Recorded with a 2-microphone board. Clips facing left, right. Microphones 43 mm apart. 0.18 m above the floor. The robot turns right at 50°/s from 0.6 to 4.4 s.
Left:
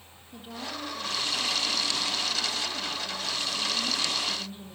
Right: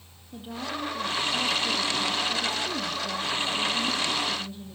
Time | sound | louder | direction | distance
0.3 | a woman speaking | right 4 dB | 175° right | 5 m